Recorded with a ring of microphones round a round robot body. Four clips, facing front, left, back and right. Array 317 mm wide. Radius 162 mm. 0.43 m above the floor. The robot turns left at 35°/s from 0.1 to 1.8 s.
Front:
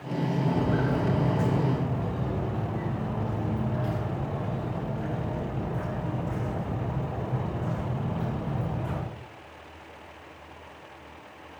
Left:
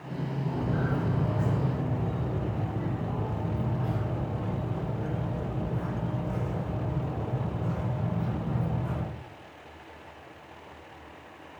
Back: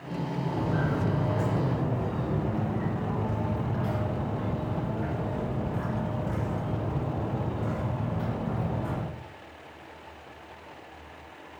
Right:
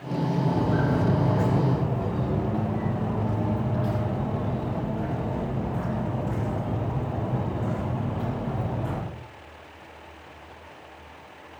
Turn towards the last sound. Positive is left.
turn(degrees=-115)